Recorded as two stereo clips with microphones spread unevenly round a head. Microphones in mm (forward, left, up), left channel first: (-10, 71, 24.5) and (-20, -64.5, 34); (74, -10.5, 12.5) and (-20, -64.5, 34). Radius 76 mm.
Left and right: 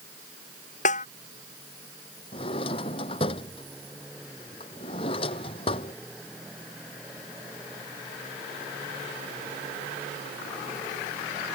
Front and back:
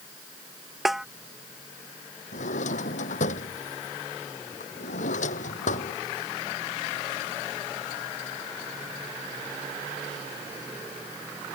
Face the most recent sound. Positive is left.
turn(degrees=30)